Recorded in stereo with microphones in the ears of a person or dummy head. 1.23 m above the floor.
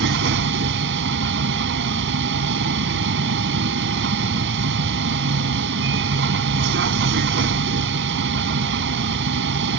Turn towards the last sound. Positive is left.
turn(degrees=-65)  # may be behind; listen again after turning